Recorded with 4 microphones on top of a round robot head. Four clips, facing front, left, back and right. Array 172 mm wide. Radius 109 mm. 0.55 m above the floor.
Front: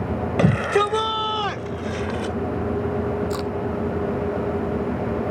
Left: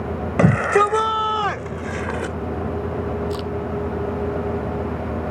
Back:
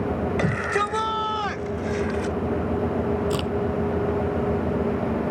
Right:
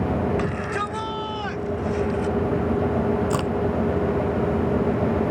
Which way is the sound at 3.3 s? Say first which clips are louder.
Right 3 dB, even; 115° right.